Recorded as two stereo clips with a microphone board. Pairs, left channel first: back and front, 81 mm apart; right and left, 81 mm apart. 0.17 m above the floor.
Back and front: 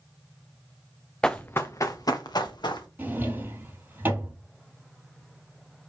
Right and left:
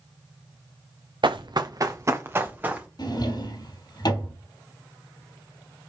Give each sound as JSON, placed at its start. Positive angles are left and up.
{"t": 1.2, "sound": "running footsteps", "azimuth_deg": 100, "distance_m": 0.9}
{"t": 3.0, "sound": "a drawer", "azimuth_deg": -65, "distance_m": 2.5}